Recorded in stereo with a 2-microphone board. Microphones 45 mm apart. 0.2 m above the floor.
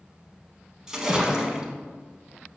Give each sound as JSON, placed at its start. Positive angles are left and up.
{"t": 0.9, "sound": "a splash", "side_deg": -15, "distance_m": 0.5}